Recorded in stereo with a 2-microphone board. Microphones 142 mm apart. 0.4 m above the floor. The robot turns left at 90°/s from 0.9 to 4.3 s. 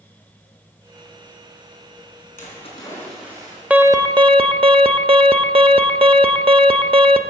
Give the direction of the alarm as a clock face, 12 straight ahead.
12 o'clock.